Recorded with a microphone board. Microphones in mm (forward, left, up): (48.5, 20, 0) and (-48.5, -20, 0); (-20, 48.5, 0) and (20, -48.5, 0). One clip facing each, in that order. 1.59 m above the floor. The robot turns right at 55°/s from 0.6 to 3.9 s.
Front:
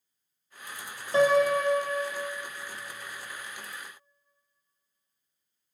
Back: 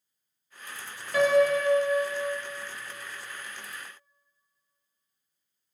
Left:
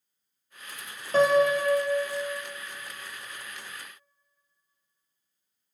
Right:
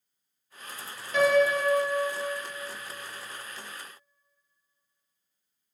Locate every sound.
1.1 s a piano: 75° left, 0.7 m; by 2.4 s 145° left, 0.7 m